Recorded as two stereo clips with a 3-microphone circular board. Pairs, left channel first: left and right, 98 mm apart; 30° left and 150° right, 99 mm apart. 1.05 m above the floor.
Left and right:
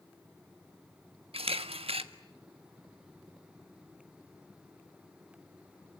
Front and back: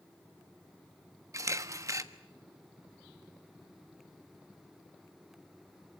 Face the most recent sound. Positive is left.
turn(degrees=-90)